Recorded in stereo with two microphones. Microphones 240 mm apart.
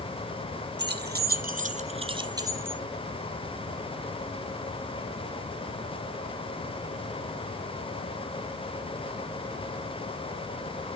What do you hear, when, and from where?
0.8 s keys jangling: 45° right (ahead or behind), 1.3 m; by 2.8 s 5° right (ahead or behind), 1.5 m